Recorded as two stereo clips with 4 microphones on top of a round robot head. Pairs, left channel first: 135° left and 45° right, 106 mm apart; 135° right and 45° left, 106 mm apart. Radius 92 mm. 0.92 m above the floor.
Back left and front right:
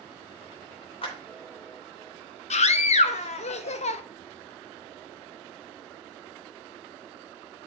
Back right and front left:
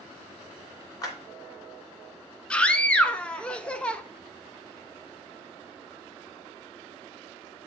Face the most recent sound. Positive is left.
turn(degrees=145)